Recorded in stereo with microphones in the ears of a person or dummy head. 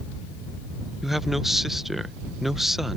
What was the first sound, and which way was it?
A man speaking, centre (ahead or behind).